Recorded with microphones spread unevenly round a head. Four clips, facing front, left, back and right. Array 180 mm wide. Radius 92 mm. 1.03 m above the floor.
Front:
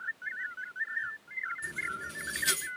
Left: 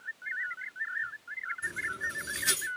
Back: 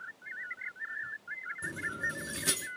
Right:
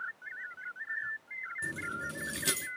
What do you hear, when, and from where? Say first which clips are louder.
1.6 s keys jangling: even, back 1 dB; 135° right, 0.9 m